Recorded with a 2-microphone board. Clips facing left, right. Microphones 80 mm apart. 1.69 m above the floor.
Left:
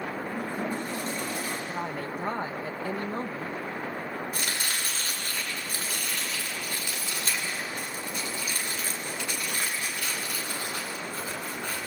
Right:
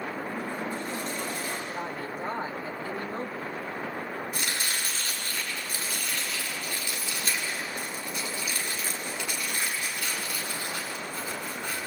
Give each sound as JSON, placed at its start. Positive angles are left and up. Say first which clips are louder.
{"t": 0.3, "sound": "a toilet flushing", "louder": "left 1 dB", "side_deg": 55, "distance_m": 8.5}
{"t": 1.7, "sound": "a woman speaking", "louder": "left 1 dB", "side_deg": 60, "distance_m": 1.8}
{"t": 4.3, "sound": "chopping", "louder": "even", "side_deg": 40, "distance_m": 7.5}